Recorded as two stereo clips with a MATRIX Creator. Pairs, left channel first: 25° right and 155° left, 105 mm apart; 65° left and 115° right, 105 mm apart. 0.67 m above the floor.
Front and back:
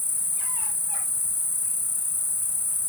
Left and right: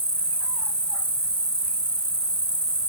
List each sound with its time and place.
0.0 s an insect: 135° right, 0.7 m